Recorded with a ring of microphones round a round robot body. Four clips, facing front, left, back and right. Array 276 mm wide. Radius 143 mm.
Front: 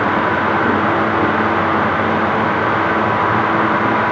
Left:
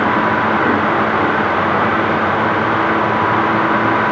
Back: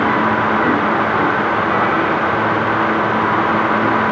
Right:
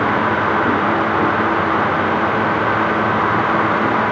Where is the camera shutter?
I don't hear a camera shutter.